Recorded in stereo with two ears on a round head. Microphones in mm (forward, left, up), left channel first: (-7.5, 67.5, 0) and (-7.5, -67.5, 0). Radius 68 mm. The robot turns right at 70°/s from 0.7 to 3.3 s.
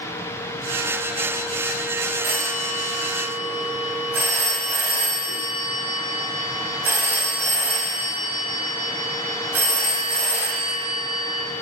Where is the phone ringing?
90° right, 2.5 m; by 11.4 s 15° right, 2.5 m.